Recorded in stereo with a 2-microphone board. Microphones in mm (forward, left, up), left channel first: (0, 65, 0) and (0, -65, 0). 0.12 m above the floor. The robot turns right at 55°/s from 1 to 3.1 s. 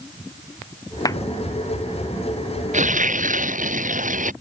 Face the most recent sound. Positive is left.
turn(degrees=-85)